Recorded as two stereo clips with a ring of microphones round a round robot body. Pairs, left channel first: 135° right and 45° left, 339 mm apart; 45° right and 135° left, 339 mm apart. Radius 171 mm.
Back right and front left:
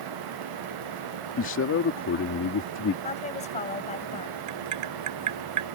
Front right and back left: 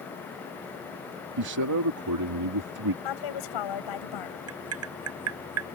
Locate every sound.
1.4 s a man speaking: 170° left
3.0 s a woman speaking: 65° right
4.5 s tapping: 85° left